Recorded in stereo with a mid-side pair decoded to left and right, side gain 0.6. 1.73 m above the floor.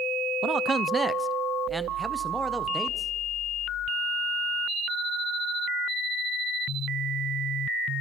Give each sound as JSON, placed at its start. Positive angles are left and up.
{"t": 0.4, "sound": "a man speaking", "azimuth_deg": -45, "distance_m": 0.5}